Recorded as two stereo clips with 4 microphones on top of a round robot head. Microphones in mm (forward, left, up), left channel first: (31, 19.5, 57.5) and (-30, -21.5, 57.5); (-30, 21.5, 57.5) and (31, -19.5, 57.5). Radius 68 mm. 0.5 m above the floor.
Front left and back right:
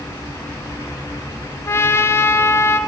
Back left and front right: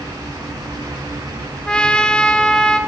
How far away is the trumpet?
About 0.7 m.